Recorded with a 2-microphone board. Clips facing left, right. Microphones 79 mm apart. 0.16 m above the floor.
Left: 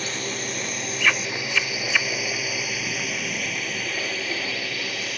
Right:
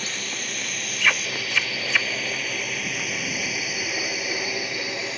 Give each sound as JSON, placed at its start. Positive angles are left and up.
{"t": 0.0, "sound": "a drone", "side_deg": 30}